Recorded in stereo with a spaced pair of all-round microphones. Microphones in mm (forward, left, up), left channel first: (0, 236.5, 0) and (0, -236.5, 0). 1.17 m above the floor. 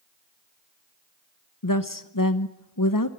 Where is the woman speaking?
45° left (ahead or behind), 1.0 m.